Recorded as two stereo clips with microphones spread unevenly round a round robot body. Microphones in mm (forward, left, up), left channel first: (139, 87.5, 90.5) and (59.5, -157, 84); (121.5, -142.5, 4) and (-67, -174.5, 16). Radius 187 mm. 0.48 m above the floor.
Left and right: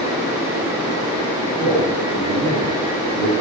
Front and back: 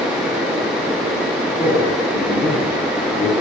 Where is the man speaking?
Straight ahead, 4 m; by 3.3 s 15° right, 3 m.